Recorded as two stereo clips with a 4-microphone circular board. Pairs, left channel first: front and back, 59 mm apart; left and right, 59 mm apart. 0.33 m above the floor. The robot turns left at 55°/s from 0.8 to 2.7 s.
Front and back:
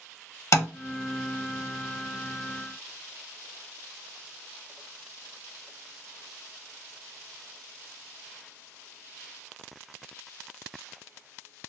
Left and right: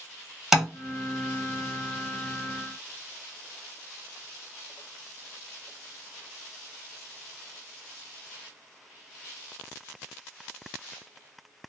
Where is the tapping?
10° right, 0.8 m.